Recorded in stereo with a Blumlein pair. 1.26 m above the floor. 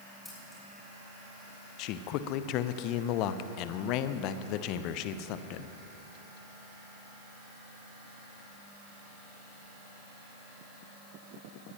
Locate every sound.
0.2 s scissors: straight ahead, 6 m
1.8 s a man speaking: 40° left, 0.7 m